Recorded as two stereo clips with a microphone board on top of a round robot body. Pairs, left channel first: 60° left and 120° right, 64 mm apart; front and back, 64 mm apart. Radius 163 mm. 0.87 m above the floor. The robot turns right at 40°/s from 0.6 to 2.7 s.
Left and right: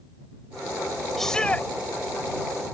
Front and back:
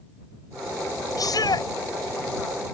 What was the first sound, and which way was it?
A shout, 25° right.